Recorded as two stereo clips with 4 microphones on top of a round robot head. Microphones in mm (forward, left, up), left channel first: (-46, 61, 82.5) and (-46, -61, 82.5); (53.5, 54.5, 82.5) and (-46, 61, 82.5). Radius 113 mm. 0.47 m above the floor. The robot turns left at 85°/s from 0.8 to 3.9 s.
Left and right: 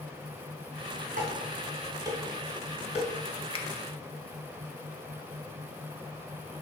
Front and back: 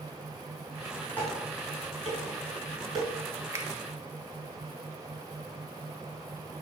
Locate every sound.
1.2 s dishes clattering: 80° right, 3 m; by 3.1 s 120° left, 3 m
3.5 s a finger snap: 125° left, 1.2 m; by 3.6 s 110° left, 1.2 m